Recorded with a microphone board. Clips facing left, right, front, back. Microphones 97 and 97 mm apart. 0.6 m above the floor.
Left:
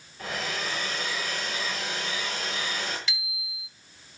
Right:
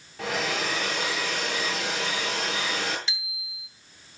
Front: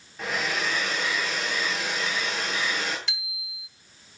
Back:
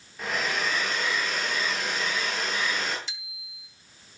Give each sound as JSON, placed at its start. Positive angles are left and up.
{"t": 0.2, "sound": "a hair dryer", "azimuth_deg": -90, "distance_m": 9.5}
{"t": 3.1, "sound": "a bicycle bell", "azimuth_deg": -30, "distance_m": 3.0}